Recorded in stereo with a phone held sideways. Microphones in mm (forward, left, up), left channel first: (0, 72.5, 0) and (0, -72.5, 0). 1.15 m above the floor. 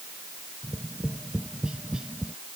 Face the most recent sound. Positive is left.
turn(degrees=-5)  # may be behind; listen again after turning